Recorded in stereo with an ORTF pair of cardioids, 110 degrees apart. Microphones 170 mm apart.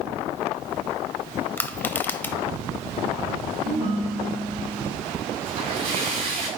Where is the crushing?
10° left, 0.7 m.